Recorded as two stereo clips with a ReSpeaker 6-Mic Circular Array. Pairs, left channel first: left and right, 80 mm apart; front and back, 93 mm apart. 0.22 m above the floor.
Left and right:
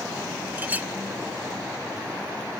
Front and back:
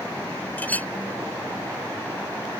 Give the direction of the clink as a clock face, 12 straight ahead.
2 o'clock.